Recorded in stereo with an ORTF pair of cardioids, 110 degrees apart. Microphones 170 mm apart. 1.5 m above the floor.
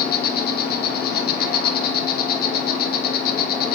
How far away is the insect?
About 0.7 m.